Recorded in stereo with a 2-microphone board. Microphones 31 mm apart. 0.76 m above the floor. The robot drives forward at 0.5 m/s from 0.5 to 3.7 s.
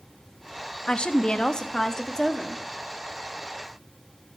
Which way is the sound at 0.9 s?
30° left (ahead or behind).